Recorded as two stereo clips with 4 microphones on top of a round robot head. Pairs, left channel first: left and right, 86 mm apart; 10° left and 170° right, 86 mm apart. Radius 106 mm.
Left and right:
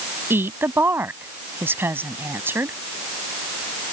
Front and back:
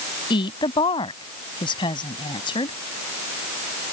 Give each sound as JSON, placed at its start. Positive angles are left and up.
{"t": 0.3, "sound": "a woman speaking", "azimuth_deg": -25}